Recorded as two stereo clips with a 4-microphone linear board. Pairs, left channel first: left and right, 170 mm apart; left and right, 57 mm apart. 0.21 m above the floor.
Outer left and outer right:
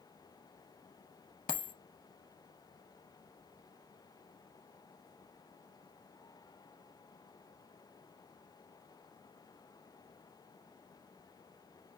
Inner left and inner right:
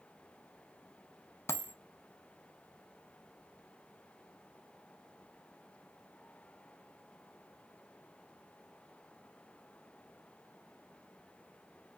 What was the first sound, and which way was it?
A dropped coin, 55° left (ahead or behind).